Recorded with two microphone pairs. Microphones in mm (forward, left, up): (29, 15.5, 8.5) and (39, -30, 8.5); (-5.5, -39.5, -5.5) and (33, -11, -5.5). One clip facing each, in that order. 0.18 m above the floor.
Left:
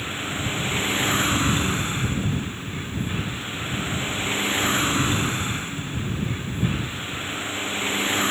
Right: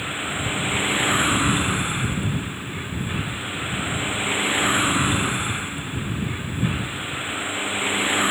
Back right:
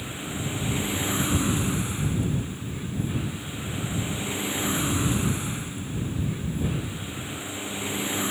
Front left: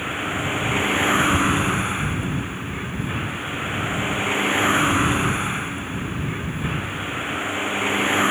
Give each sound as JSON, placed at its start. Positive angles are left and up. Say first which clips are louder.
{"t": 0.0, "sound": "a vehicle", "louder": "right 2 dB, front left 8 dB", "azimuth_deg": 0}